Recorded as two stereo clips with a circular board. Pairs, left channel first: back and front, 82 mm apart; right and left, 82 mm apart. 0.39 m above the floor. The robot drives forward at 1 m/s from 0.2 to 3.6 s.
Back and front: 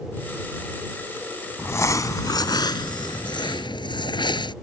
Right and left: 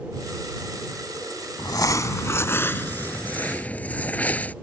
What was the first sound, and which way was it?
Crumpling, 120° right.